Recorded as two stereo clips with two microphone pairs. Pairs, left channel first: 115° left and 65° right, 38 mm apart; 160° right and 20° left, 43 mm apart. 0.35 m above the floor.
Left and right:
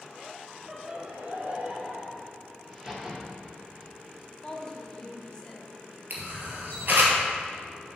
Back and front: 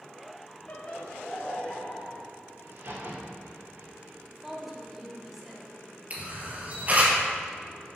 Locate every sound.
0.7 s laughter: 145° right, 1.0 m; by 2.2 s 90° right, 2 m
2.6 s a crack: straight ahead, 2 m
4.3 s a woman speaking: 90° left, 0.9 m
6.1 s a camera shutter: 35° right, 1.6 m